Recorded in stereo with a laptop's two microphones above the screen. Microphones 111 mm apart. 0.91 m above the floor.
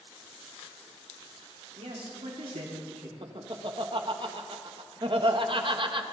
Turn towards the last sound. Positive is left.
turn(degrees=-50)  # may be behind; listen again after turning